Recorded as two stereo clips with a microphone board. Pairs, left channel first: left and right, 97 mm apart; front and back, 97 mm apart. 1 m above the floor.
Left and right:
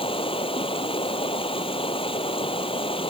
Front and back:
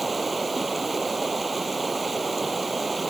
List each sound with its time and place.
0.0 s running water: 90° left